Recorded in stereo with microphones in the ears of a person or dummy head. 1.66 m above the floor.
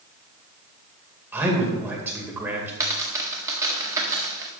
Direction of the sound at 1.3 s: 15° right (ahead or behind).